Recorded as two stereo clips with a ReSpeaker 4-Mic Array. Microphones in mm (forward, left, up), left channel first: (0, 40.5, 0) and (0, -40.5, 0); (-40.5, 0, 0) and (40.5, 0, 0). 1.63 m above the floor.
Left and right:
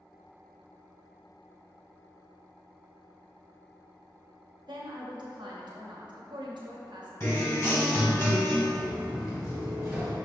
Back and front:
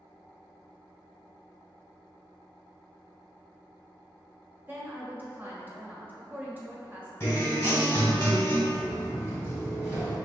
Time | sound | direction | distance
4.7 | a woman speaking | 65° right | 1.0 m
7.2 | a guitar | 125° left | 1.8 m
8.7 | footsteps | 10° right | 2.0 m